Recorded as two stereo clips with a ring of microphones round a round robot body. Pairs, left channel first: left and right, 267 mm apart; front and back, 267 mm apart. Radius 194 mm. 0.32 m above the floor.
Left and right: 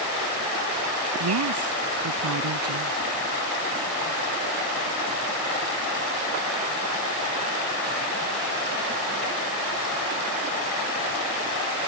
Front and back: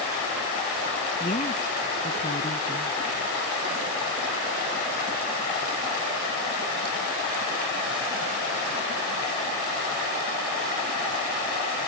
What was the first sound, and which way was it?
A woman speaking, 70° right.